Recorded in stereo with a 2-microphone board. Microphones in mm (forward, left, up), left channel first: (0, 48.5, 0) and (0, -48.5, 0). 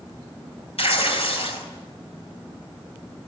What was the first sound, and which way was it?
Tearing paper, 75° left (ahead or behind).